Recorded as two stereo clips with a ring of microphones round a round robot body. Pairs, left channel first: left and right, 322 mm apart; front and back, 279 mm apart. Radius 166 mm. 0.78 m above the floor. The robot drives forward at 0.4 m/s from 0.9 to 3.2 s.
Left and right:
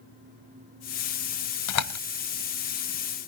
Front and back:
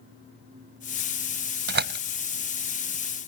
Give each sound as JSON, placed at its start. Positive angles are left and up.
{"t": 1.7, "sound": "a door slam", "azimuth_deg": 125}